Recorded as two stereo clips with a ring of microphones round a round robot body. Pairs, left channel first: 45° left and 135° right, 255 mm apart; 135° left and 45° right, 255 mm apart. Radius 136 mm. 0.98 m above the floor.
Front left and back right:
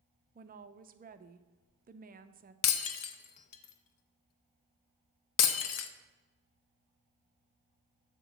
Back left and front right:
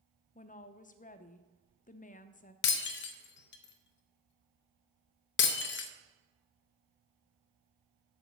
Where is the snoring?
No snoring in this recording.